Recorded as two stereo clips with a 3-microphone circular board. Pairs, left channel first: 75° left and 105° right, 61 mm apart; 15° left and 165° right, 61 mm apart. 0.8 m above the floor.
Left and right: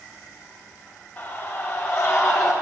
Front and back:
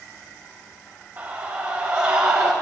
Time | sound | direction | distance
1.2 | a scream | 150° left | 1.9 m